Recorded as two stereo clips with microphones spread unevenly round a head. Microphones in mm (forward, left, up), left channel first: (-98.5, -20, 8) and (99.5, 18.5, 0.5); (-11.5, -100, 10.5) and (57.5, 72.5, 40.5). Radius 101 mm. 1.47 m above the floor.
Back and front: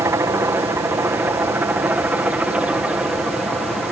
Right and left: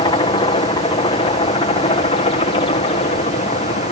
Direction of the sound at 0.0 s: 60° right.